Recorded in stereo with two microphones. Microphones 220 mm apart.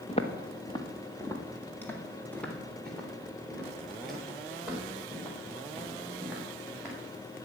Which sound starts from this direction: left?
Footsteps, at 0.1 s.